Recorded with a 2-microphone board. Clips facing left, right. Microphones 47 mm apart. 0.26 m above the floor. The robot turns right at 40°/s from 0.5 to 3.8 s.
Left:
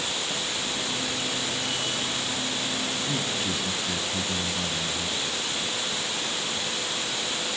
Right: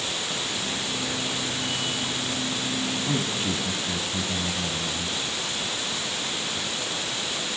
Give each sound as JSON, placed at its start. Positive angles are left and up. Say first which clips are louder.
{"t": 3.0, "sound": "a man speaking", "louder": "right 2 dB", "azimuth_deg": -25, "distance_m": 1.9}